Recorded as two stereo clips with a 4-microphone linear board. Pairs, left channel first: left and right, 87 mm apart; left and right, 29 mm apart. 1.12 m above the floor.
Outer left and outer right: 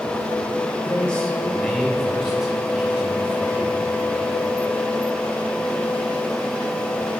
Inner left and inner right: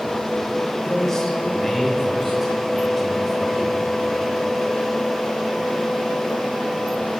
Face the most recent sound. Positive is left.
turn(degrees=-20)  # may be behind; listen again after turning